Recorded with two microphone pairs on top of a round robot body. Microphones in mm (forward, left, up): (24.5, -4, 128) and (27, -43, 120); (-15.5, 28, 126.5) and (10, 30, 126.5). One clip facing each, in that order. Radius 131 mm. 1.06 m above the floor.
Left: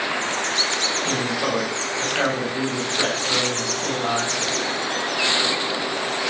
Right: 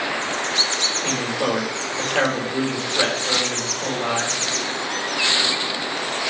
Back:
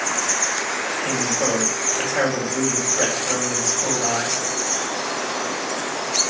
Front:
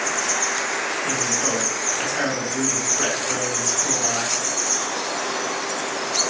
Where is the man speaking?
115° right, 4 m.